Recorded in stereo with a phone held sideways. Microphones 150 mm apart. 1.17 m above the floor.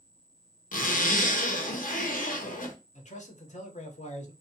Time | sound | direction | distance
0.7 | a zipper | 65° left (ahead or behind) | 0.7 m
3.0 | a man speaking | 50° left (ahead or behind) | 0.8 m